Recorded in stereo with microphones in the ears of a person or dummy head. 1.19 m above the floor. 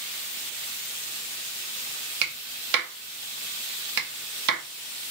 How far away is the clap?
About 1.1 m.